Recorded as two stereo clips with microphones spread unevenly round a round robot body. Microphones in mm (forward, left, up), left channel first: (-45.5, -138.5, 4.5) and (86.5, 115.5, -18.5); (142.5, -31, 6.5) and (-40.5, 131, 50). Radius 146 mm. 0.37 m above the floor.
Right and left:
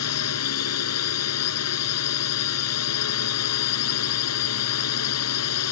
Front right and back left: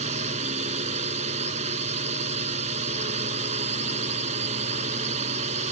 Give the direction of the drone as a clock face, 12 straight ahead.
5 o'clock.